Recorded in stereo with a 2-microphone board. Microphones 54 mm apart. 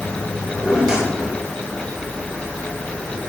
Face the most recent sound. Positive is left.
turn(degrees=-15)  # may be behind; listen again after turning